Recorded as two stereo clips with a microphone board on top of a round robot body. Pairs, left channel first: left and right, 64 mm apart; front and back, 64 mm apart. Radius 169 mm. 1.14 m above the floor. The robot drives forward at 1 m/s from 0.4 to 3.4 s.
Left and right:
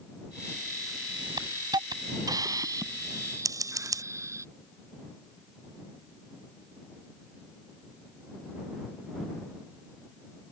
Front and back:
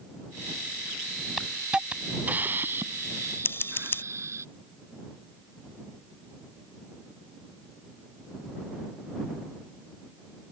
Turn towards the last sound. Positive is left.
turn(degrees=-60)